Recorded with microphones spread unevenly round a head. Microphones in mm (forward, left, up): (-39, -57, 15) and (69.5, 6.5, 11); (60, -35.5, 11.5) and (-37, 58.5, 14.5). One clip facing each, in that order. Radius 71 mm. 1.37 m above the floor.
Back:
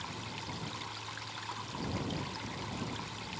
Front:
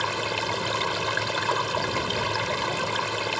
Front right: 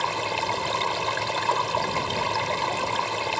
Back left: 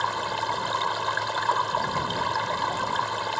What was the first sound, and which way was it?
Running water, 30° left.